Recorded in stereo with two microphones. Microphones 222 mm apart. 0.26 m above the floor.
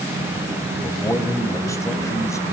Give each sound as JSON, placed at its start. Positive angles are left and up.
{"t": 0.8, "sound": "a man speaking", "side_deg": 15, "distance_m": 1.8}